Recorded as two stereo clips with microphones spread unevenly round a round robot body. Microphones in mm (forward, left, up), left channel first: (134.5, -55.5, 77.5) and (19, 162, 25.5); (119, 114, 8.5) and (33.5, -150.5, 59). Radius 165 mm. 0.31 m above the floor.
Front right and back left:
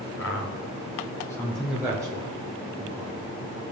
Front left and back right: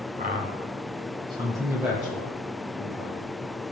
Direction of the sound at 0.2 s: 55° right.